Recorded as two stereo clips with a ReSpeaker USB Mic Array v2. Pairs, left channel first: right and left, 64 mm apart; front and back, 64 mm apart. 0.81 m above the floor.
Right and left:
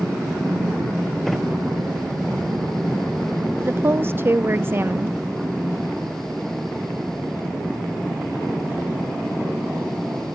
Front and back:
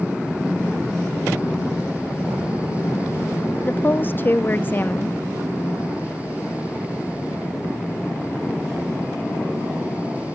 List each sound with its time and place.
3.6 s a woman speaking: 50° left, 0.7 m